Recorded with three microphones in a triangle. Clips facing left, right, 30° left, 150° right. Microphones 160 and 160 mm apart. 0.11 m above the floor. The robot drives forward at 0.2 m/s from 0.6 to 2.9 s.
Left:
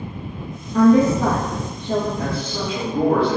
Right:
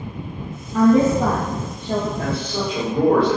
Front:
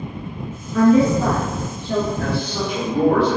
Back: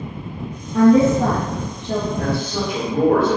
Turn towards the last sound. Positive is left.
turn(degrees=-145)